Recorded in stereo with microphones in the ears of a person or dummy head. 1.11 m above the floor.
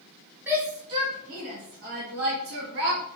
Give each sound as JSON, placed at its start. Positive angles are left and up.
{"t": 0.5, "sound": "a shout", "side_deg": -15, "distance_m": 1.2}